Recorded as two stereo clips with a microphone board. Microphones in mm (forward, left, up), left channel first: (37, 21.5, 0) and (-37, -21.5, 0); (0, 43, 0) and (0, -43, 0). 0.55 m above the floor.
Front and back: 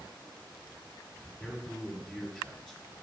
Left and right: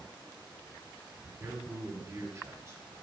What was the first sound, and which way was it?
A man speaking, 65° right.